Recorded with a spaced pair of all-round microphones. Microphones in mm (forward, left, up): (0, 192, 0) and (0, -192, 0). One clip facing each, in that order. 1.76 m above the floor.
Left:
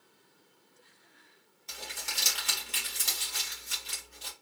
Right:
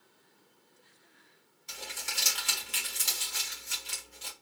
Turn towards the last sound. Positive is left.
turn(degrees=-20)  # may be behind; listen again after turning